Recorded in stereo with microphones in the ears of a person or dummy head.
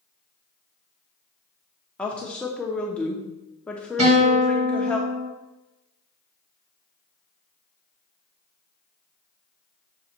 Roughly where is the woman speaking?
Centre.